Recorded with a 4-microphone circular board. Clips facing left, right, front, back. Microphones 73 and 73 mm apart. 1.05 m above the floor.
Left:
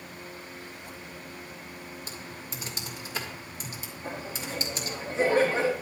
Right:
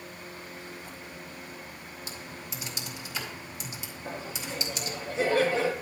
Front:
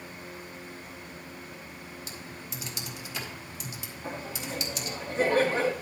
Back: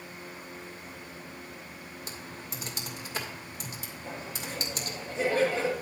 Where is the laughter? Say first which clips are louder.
Left 1 dB, front 3 dB; 35° left, 1.9 m.